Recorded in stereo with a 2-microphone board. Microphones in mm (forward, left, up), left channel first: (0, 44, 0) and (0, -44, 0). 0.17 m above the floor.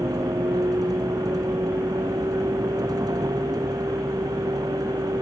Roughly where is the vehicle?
Right.